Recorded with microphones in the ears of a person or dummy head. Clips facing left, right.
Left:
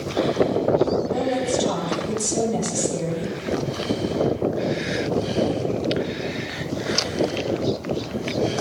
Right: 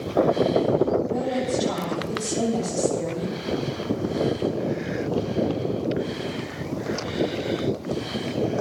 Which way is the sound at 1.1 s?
80° left.